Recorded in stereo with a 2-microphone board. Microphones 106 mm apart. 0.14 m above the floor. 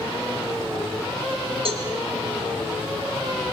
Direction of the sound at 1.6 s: 65° right (ahead or behind).